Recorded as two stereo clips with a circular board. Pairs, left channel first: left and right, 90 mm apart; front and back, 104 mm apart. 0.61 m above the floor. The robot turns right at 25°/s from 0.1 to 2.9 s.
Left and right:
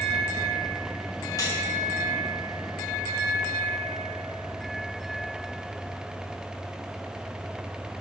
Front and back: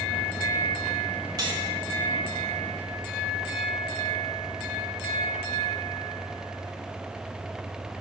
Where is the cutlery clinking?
135° left, 1.2 m; by 1.6 s 140° left, 1.2 m.